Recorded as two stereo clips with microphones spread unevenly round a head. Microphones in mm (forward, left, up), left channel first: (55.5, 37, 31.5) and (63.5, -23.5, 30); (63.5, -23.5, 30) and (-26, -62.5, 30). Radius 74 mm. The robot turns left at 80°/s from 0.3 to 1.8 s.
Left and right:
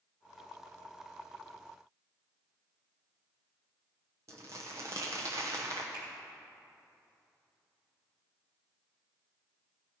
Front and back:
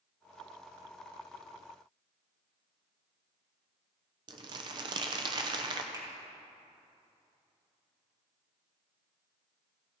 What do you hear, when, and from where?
4.3 s crumpling: 135° right, 0.8 m
5.9 s a finger snap: 105° right, 2.5 m